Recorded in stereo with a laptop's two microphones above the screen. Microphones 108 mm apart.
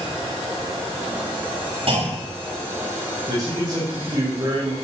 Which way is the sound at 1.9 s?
65° right (ahead or behind).